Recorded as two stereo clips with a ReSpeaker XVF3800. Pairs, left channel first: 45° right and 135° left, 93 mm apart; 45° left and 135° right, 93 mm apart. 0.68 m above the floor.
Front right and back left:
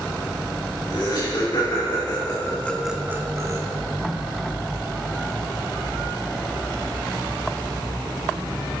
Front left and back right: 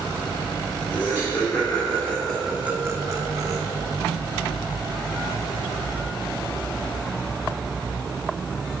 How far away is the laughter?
About 3 m.